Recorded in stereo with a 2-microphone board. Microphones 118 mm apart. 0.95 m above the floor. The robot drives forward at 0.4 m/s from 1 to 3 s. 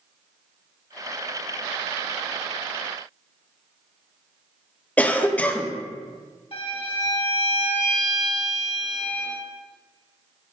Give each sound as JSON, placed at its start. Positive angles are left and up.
{"t": 5.0, "sound": "a cough", "side_deg": 10, "distance_m": 0.6}
{"t": 6.5, "sound": "a violin", "side_deg": 60, "distance_m": 2.5}